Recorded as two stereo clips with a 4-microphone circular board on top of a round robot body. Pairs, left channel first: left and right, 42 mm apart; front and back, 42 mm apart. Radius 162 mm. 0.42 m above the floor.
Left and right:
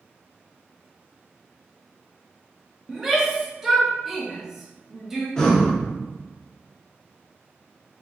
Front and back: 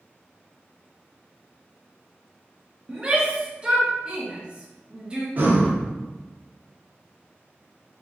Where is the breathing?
155° left, 1.2 m.